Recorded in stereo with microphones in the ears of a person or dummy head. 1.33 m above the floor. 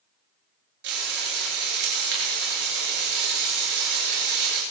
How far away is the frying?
About 9 m.